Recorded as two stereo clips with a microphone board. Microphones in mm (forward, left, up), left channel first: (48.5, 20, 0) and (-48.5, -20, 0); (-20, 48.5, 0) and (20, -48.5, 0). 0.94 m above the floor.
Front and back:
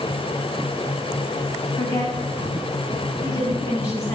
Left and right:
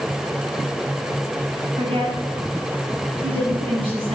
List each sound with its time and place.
1.8 s a woman speaking: 35° right, 7.5 m; by 4.2 s 40° right, 9.5 m